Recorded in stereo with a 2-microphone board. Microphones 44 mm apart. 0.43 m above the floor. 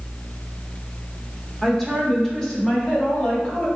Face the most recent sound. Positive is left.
turn(degrees=25)  # may be behind; listen again after turning